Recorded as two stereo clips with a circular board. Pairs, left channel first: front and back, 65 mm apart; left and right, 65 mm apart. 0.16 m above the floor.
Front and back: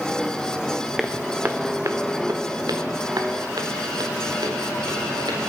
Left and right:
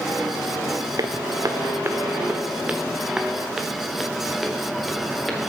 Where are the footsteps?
90° right, 0.7 m; by 5.4 s straight behind, 3.5 m.